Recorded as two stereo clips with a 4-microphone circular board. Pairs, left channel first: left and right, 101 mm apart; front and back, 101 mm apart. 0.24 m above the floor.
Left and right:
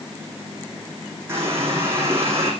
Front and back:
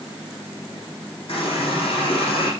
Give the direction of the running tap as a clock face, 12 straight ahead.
1 o'clock.